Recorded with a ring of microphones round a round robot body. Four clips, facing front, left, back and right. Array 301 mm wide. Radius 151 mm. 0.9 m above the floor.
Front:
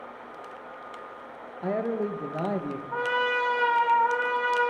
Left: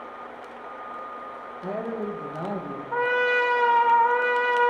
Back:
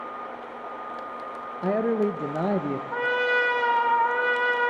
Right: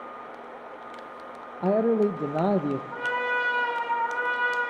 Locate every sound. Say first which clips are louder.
1.6 s a man speaking: right 9 dB, back 4 dB; 120° right, 0.5 m
2.9 s a trumpet: left 5 dB, back 1 dB; 100° left, 1.3 m